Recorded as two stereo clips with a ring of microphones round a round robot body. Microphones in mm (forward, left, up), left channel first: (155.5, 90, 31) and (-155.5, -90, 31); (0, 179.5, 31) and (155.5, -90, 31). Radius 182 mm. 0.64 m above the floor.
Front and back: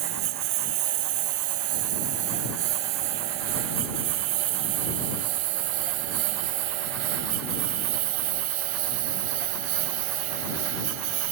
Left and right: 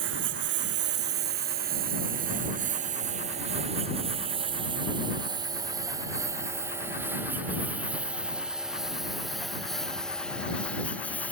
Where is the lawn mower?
120° right; by 11.3 s 155° right.